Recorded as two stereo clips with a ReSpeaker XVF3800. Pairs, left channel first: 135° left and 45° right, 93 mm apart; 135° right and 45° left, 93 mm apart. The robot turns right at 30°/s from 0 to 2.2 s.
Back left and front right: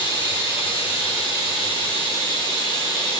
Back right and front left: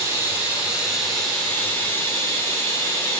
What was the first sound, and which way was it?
Running water, 105° left.